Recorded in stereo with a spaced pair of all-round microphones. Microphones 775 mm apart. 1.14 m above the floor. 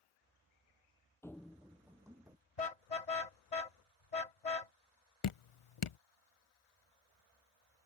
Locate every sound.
1.2 s running footsteps: 5° left (ahead or behind); by 2.4 s 5° right (ahead or behind)
2.6 s a car horn: 55° left (ahead or behind)
5.2 s dripping: 45° left (ahead or behind)